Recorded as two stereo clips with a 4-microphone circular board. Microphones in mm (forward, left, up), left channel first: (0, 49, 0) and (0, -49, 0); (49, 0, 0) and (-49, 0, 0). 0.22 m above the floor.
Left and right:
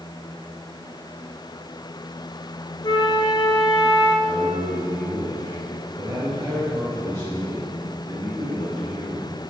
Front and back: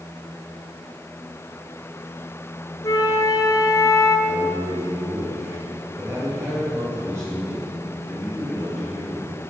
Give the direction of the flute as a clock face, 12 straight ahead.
10 o'clock.